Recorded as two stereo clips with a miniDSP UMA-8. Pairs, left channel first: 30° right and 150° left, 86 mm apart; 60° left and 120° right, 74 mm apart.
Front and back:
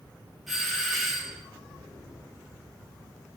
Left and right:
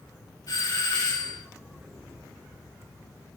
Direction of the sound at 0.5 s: 60° left.